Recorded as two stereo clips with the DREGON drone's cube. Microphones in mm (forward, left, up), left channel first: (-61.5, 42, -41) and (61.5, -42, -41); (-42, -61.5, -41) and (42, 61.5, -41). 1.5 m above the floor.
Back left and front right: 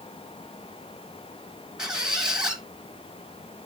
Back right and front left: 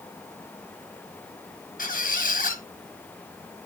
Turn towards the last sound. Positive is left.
turn(degrees=-120)